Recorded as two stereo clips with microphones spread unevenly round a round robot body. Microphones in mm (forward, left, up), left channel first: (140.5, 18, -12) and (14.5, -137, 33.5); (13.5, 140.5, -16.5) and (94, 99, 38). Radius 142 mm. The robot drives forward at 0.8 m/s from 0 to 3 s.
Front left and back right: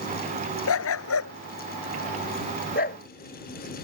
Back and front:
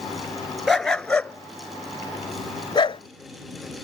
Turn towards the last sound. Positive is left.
turn(degrees=115)